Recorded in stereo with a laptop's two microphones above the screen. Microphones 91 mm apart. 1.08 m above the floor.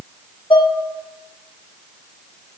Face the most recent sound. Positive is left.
turn(degrees=65)  # may be behind; listen again after turning